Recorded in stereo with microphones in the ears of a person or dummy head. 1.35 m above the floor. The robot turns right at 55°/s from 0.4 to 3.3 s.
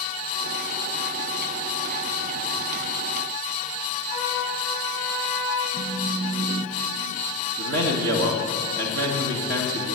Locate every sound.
4.1 s a trumpet: 5° right (ahead or behind), 3.5 m
5.7 s a phone buzzing: 40° right (ahead or behind), 0.9 m
7.6 s a man speaking: 80° right, 1.7 m